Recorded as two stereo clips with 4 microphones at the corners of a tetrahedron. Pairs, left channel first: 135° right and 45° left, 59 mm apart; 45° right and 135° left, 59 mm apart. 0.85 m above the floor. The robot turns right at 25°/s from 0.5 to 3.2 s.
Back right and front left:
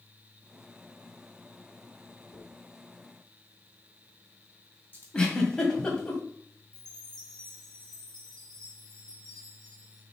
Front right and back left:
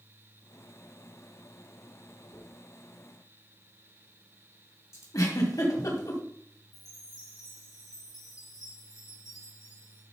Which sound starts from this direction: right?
A dropped coin, at 2.3 s.